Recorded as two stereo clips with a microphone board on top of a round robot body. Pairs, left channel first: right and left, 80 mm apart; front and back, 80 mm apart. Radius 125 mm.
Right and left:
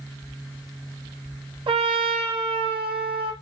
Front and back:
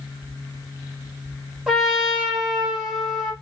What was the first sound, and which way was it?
A trumpet, 95° left.